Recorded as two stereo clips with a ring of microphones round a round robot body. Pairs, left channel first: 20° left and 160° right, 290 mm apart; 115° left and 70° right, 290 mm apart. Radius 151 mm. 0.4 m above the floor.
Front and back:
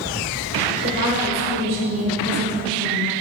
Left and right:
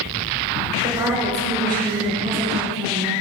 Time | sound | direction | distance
0.8 | a woman speaking | 145° right | 1.6 m